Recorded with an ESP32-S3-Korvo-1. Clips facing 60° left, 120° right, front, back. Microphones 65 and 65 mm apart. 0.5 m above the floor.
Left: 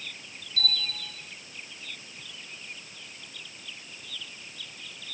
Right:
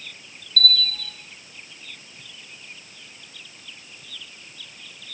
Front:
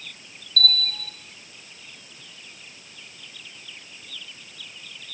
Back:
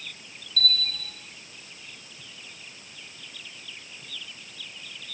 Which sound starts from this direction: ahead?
A bell, at 0.6 s.